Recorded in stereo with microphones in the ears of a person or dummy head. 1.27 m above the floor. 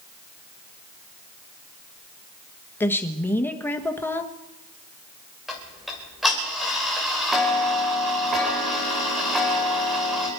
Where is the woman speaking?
15° left (ahead or behind), 1.4 m.